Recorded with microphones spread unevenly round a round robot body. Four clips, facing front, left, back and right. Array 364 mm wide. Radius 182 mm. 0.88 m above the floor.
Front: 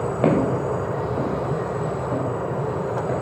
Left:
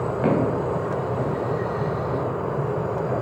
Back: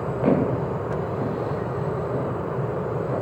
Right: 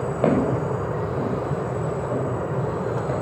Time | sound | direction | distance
0.2 | footsteps | 10° right | 7 m